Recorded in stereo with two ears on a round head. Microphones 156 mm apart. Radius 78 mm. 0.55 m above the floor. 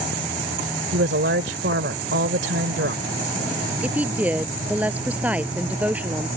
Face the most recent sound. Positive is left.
turn(degrees=-10)  # may be behind; listen again after turning